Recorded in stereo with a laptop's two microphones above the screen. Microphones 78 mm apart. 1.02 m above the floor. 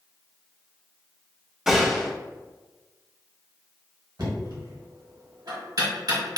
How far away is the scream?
No scream in this recording.